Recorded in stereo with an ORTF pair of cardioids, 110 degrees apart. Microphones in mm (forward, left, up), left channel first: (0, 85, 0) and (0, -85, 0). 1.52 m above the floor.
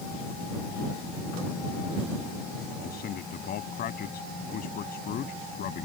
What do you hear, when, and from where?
2.8 s a man speaking: 60° left